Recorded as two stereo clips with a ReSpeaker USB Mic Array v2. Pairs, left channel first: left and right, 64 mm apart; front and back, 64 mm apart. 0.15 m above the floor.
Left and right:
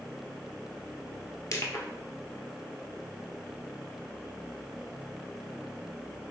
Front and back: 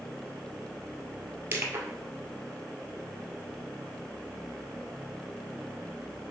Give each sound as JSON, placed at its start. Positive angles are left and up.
{"t": 1.5, "sound": "crushing", "azimuth_deg": 125, "distance_m": 1.1}